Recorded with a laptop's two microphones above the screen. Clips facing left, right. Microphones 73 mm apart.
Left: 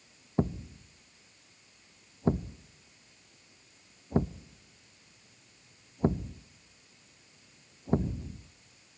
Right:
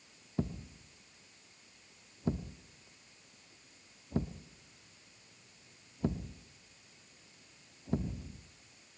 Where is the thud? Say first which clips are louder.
Left 7 dB; 40° left (ahead or behind), 0.5 m.